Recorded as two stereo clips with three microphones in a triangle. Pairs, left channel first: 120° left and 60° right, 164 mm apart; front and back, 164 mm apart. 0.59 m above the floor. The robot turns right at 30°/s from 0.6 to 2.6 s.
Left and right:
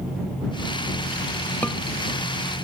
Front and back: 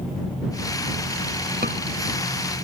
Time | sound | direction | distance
1.6 | a scream | 160° right | ?